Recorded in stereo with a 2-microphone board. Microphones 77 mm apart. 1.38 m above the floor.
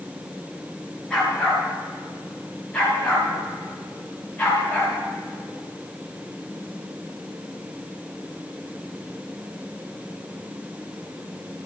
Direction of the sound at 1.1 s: 10° left (ahead or behind).